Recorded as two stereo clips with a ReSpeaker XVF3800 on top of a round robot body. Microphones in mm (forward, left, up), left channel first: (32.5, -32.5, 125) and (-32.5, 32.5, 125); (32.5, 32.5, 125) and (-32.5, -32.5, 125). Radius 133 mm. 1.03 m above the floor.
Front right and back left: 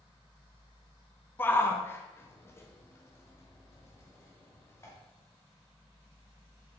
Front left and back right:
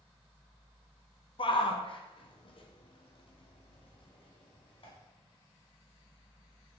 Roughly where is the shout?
Ahead left.